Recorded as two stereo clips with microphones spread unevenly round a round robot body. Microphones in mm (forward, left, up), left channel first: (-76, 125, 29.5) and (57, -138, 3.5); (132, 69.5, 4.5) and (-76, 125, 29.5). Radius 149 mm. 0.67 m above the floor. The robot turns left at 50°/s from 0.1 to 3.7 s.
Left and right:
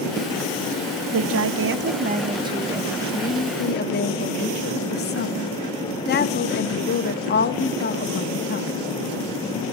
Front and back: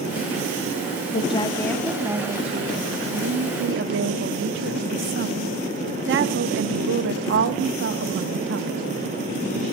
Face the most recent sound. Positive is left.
turn(degrees=170)